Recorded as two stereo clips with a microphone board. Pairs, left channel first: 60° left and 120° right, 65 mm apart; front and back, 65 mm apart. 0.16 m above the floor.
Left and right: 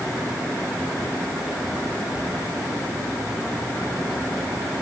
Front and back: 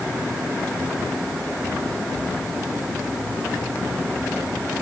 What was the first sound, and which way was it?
Only background noise.